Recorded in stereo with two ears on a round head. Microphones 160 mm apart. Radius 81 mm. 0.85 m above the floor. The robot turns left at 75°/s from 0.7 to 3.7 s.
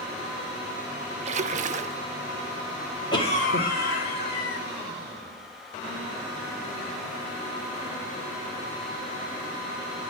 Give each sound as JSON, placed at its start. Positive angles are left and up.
{"t": 1.2, "sound": "a splash", "azimuth_deg": -65, "distance_m": 0.6}
{"t": 3.1, "sound": "a cough", "azimuth_deg": 150, "distance_m": 2.0}